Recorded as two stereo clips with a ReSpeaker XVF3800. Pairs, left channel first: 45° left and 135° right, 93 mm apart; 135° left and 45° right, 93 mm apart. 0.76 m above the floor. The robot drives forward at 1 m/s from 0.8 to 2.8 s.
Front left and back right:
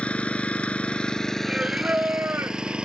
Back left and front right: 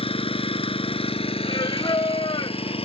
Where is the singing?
145° left; by 2.8 s 165° left.